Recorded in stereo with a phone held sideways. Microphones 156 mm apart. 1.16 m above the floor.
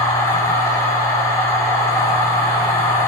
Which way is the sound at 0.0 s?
20° left (ahead or behind).